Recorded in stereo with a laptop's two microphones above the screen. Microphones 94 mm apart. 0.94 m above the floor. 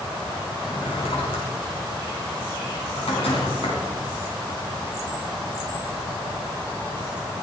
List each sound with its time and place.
0.6 s a drawer: 85° left, 4.5 m